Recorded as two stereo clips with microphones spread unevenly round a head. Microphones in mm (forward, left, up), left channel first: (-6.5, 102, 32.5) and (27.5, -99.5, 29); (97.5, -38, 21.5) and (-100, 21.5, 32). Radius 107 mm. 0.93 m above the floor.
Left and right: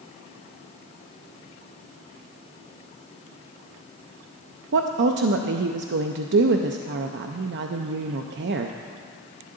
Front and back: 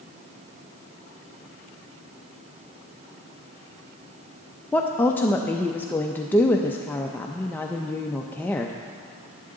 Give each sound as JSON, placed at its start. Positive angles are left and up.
{"t": 4.7, "sound": "a woman speaking", "azimuth_deg": -95, "distance_m": 0.5}